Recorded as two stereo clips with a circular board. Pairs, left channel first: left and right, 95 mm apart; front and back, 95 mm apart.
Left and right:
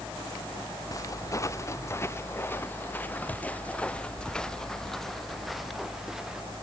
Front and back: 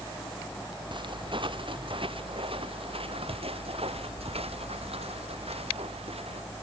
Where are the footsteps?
145° left; by 6.4 s 175° right.